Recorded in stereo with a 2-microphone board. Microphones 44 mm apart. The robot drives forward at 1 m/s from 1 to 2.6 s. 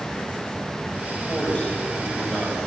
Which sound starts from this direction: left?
A man speaking, at 1.3 s.